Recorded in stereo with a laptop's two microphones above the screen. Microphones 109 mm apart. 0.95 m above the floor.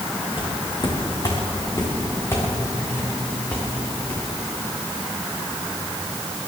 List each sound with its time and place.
0.4 s footsteps: 45° left (ahead or behind), 4.5 m; by 4.2 s 10° left (ahead or behind), 7 m